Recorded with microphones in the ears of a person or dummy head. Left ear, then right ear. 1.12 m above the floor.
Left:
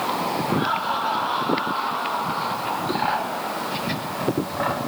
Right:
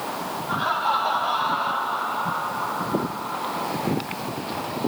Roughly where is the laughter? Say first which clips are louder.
Right 5 dB; right.